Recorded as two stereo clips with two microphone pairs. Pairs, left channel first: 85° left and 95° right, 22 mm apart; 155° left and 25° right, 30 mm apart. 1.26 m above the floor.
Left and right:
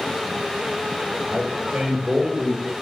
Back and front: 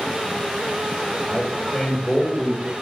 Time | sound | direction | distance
1.2 | a man speaking | 135° right | 4.5 m